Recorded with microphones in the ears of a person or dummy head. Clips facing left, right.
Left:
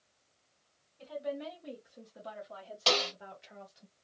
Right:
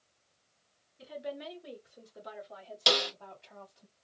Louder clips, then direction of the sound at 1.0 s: Left 2 dB; 20° right (ahead or behind).